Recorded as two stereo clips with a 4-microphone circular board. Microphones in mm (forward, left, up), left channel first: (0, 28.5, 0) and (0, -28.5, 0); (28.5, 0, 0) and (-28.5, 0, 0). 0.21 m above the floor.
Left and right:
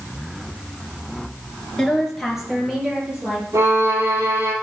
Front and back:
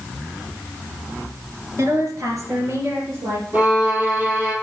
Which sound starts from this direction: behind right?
A violin, at 3.5 s.